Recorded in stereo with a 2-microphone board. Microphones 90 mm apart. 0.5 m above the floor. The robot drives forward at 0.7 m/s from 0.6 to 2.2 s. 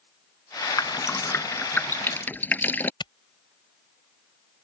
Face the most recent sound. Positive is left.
turn(degrees=60)  # may be behind; listen again after turning